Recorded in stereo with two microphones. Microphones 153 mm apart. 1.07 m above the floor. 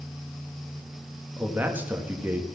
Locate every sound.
1.4 s a man speaking: 10° right (ahead or behind), 1.8 m